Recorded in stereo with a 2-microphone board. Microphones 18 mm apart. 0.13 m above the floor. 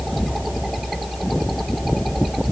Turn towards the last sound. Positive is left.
No sound to turn to.